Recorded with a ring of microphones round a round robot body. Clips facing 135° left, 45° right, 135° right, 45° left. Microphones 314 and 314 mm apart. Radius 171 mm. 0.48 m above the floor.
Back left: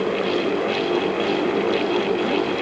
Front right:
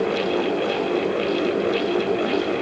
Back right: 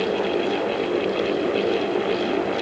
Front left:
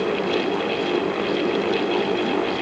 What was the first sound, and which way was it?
Only background noise.